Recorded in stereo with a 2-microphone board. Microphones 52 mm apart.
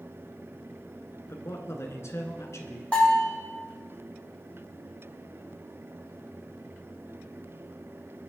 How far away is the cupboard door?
I don't hear a cupboard door.